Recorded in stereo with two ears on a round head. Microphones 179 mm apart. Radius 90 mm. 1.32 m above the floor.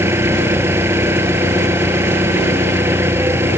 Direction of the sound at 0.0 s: 15° right (ahead or behind).